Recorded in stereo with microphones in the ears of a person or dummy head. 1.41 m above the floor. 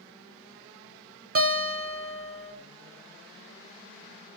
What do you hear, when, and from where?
1.4 s a guitar: 45° right (ahead or behind), 0.9 m